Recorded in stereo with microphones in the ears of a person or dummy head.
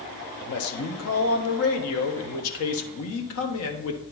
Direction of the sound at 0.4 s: 80° left.